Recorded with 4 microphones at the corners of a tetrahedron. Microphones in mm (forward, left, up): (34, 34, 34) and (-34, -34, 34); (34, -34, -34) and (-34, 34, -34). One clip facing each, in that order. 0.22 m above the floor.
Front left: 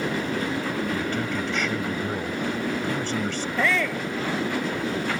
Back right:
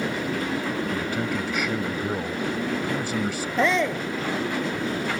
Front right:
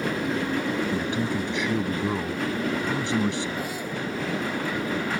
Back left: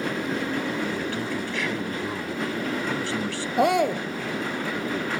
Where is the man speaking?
70° right.